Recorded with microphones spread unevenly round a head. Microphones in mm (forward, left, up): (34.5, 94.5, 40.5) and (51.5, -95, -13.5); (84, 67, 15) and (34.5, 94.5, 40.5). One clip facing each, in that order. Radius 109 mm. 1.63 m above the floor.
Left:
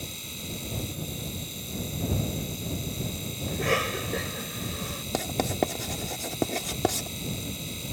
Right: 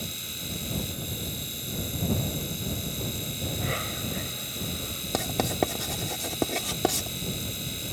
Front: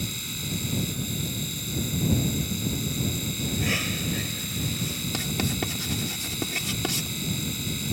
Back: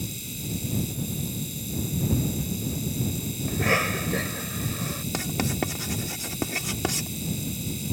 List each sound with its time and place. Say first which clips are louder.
0.0 s a machine running: right 1 dB, front 1 dB; 5° right
3.5 s a cough: left 8 dB, back 6 dB; 120° left
5.1 s writing: even, back 1 dB; 165° left